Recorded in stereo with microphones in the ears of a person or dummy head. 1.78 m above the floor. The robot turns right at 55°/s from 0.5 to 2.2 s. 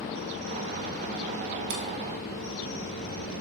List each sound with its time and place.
1.7 s a camera shutter: 60° right (ahead or behind), 1.3 m